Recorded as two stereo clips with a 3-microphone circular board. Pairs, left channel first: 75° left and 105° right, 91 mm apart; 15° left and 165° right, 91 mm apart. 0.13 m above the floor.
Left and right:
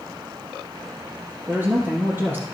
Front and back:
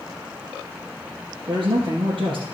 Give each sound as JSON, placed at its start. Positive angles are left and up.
{"t": 1.5, "sound": "a man speaking", "azimuth_deg": -165, "distance_m": 2.5}